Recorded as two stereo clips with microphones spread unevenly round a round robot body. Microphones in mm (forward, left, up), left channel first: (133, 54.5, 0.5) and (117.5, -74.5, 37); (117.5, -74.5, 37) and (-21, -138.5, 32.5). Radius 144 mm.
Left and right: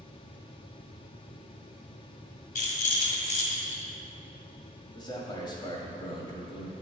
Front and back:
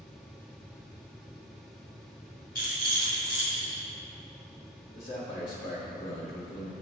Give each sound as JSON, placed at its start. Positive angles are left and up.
{"t": 2.5, "sound": "a rattle", "azimuth_deg": 85, "distance_m": 1.4}
{"t": 5.0, "sound": "a man speaking", "azimuth_deg": 90, "distance_m": 1.4}